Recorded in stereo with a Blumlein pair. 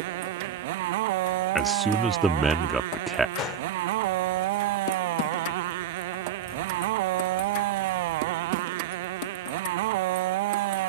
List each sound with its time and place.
0.0 s a motorcycle: 50° right
1.6 s a man speaking: 10° right
3.4 s a gunshot: 30° left